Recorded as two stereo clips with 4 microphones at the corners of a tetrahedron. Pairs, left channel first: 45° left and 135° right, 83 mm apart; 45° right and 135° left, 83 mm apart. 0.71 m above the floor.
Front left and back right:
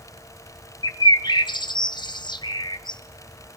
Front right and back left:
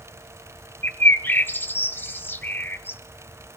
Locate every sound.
0.8 s a bird: 20° left, 0.6 m